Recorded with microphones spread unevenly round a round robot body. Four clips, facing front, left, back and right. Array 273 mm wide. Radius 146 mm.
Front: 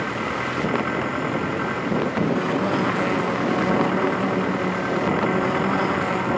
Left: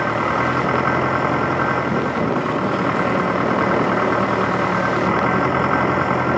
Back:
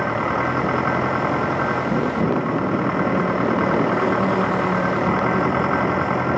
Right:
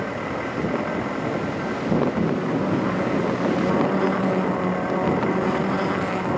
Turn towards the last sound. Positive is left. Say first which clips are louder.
# left 8 dB, back 5 dB
turn(degrees=100)